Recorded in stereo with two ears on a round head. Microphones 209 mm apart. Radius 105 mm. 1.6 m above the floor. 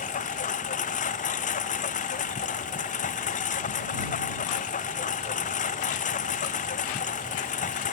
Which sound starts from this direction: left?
A lawn mower, at 0.0 s.